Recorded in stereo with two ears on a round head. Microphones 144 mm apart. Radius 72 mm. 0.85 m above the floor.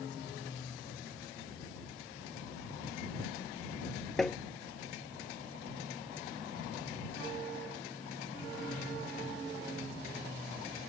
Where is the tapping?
Centre (ahead or behind).